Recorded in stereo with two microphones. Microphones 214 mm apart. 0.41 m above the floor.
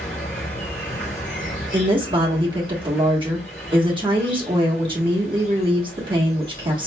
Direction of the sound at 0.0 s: 65° left (ahead or behind).